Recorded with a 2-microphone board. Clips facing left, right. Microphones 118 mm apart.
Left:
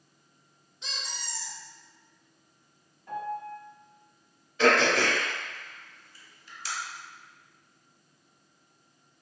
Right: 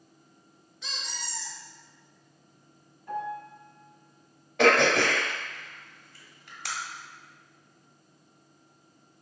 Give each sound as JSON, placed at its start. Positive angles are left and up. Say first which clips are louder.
{"t": 0.8, "sound": "a squeak", "louder": "right 1 dB", "side_deg": 25, "distance_m": 1.0}
{"t": 3.1, "sound": "a piano", "louder": "even", "side_deg": 0, "distance_m": 1.5}
{"t": 4.6, "sound": "throat clearing", "louder": "right 2 dB", "side_deg": -60, "distance_m": 0.6}